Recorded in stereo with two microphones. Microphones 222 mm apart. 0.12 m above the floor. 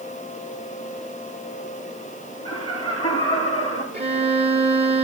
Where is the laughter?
25° left (ahead or behind), 9 m.